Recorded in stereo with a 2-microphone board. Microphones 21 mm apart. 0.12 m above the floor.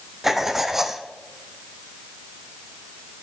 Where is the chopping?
No chopping in this recording.